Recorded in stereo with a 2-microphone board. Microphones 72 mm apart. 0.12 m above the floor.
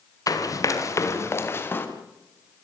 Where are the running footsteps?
55° left (ahead or behind), 5 m; by 1.9 s 30° left (ahead or behind), 4.5 m.